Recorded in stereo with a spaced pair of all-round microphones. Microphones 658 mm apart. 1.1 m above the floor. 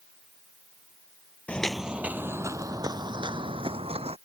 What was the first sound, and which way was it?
Footsteps, centre (ahead or behind).